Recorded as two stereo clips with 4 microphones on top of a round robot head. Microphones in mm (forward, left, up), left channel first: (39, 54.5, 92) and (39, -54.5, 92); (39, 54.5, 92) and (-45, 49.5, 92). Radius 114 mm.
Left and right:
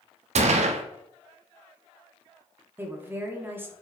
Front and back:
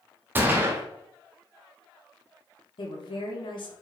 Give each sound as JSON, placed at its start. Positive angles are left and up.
{"t": 0.3, "sound": "a gunshot", "azimuth_deg": -110, "distance_m": 0.8}
{"t": 2.8, "sound": "a woman speaking", "azimuth_deg": -20, "distance_m": 1.8}